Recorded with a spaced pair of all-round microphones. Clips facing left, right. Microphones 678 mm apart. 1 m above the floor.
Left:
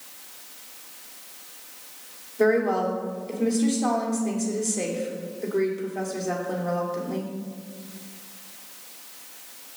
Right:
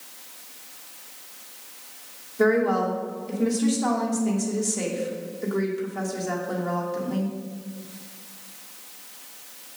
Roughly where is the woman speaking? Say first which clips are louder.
Even; right.